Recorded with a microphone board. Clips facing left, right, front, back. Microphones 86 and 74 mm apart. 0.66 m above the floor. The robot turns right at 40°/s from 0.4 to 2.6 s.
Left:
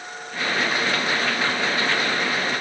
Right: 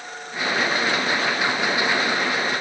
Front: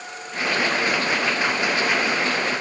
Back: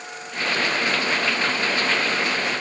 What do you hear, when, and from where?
Only background noise.